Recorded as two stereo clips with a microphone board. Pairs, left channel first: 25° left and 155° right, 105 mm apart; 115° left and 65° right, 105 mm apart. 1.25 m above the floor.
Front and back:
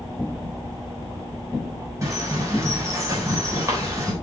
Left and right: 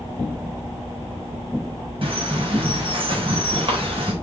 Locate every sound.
2.0 s a bird: 95° right, 3.5 m